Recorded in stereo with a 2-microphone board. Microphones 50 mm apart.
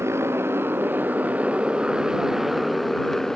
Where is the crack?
I don't hear a crack.